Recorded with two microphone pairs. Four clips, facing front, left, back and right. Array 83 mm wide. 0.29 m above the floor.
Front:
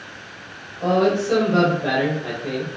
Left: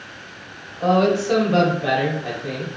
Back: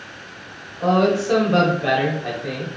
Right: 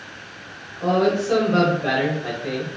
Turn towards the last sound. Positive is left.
turn(degrees=-140)